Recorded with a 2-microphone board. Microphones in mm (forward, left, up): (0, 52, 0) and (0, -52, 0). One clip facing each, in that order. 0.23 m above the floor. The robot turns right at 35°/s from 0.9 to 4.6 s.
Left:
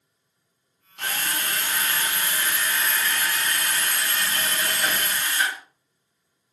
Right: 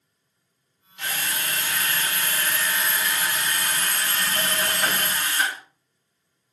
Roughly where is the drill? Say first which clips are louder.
Left 1 dB; behind left.